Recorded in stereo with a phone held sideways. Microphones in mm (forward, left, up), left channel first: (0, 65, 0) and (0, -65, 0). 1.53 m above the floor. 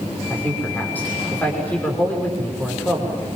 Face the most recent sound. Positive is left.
turn(degrees=15)  # may be behind; listen again after turning